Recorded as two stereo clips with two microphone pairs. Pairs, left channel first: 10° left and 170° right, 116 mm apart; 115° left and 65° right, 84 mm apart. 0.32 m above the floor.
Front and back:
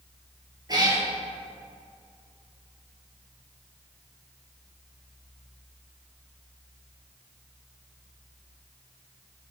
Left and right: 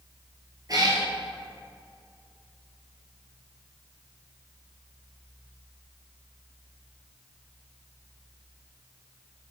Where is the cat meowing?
115° right, 2 m.